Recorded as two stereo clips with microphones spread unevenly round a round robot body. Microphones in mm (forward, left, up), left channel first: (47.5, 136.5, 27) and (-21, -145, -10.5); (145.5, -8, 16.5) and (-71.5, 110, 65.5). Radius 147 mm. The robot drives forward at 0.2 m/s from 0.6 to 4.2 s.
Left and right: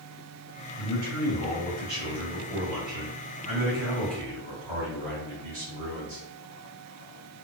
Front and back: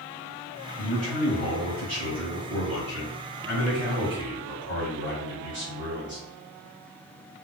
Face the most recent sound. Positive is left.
turn(degrees=-150)